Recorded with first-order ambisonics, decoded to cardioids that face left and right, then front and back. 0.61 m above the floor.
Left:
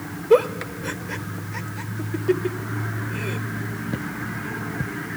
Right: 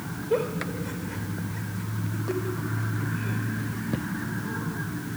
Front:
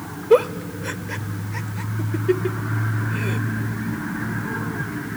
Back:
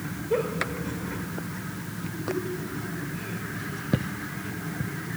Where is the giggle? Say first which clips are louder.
Left 9 dB, front 10 dB; 40° left, 0.6 m.